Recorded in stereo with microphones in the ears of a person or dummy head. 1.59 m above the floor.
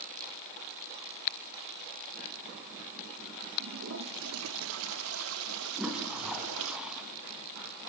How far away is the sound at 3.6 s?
About 0.6 m.